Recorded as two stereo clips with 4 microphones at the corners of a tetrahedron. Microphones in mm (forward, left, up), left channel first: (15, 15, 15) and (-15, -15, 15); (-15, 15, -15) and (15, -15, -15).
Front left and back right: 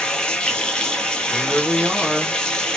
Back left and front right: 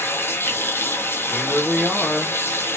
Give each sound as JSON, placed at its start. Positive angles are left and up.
{"t": 0.0, "sound": "running water", "azimuth_deg": 115, "distance_m": 0.8}
{"t": 1.3, "sound": "a woman speaking", "azimuth_deg": -110, "distance_m": 1.4}